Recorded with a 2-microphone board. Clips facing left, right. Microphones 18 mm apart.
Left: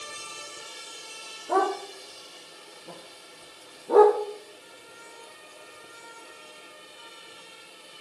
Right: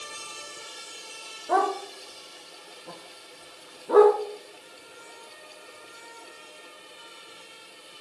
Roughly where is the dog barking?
Right.